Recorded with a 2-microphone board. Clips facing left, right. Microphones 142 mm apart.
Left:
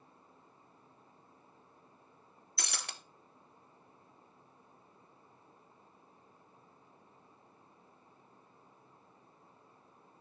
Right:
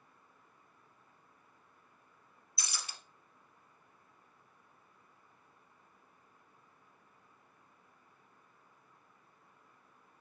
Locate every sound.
2.6 s breaking glass: 65° left (ahead or behind), 1.2 m